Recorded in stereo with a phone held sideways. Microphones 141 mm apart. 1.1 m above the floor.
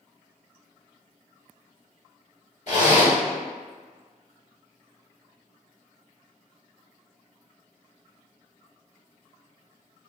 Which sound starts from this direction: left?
A zipper, at 2.7 s.